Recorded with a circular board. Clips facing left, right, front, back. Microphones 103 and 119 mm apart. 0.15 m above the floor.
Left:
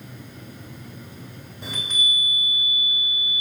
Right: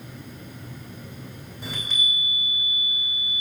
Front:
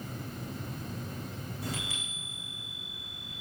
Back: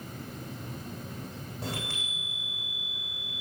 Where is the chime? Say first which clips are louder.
Left 1 dB, back 3 dB; straight behind, 3 m.